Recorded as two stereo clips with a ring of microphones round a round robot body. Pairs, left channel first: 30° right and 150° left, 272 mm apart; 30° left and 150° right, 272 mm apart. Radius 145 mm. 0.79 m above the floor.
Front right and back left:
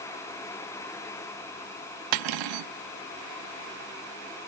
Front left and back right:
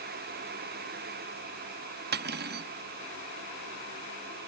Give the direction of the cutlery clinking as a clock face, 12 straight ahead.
7 o'clock.